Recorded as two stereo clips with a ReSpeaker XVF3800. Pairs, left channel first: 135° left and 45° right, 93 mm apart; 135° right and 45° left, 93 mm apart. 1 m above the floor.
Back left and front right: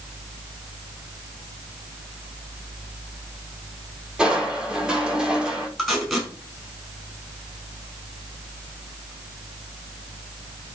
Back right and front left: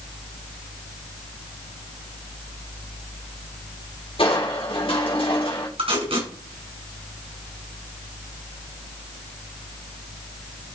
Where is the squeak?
I don't hear a squeak.